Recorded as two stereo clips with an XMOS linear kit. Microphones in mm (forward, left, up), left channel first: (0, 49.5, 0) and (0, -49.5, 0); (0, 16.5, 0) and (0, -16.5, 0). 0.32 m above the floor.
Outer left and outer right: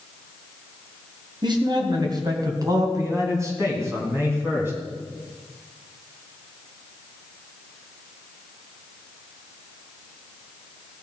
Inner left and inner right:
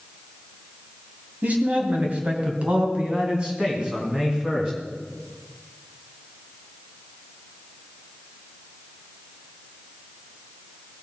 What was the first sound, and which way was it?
A man speaking, 50° right (ahead or behind).